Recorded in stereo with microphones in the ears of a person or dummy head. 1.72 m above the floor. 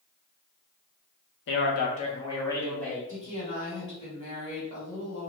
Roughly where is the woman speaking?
Left.